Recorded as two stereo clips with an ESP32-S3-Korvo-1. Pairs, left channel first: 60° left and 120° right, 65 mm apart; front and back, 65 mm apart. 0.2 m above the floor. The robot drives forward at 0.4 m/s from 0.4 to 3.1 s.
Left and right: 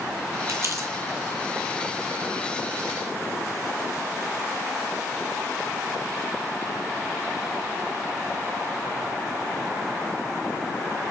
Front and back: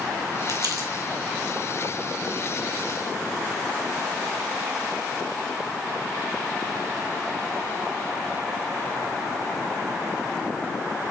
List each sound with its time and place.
0.5 s crumpling: 160° right, 1.0 m